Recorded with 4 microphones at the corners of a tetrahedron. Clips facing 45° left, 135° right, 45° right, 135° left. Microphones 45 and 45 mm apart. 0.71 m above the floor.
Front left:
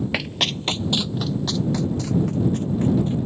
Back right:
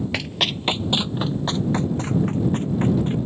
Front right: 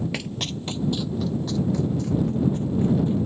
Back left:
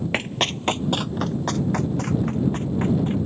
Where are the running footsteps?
120° left; by 3.1 s 175° left.